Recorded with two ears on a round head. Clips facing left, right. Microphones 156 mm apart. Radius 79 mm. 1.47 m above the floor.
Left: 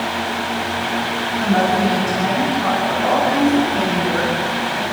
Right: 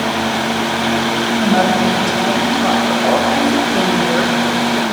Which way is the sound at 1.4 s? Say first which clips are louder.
Right 2 dB; 45° right (ahead or behind).